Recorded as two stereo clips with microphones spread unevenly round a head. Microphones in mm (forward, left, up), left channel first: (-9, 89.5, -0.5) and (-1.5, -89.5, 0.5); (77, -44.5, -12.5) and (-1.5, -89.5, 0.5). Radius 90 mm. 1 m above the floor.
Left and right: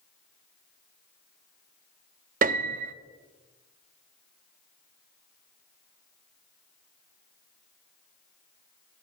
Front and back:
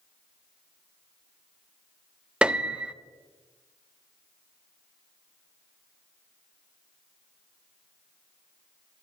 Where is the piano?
80° right, 0.5 m.